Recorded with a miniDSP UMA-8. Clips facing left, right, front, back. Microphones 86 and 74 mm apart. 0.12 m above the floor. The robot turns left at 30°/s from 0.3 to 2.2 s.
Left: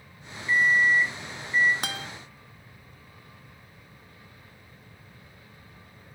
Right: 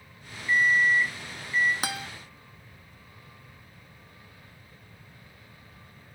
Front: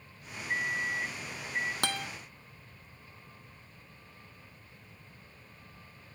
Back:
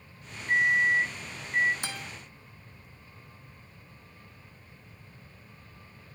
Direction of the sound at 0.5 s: Straight behind.